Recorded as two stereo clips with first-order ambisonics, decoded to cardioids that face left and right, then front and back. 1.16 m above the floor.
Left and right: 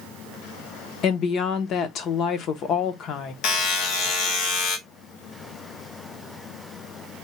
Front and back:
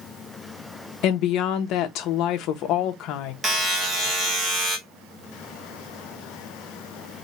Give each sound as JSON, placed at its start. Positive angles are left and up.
{"t": 1.0, "sound": "a woman speaking", "azimuth_deg": 40, "distance_m": 0.7}
{"t": 3.4, "sound": "a buzzer", "azimuth_deg": 110, "distance_m": 1.2}